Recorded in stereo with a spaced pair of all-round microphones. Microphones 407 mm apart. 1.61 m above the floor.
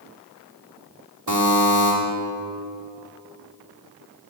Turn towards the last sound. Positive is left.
turn(degrees=-75)  # may be behind; listen again after turning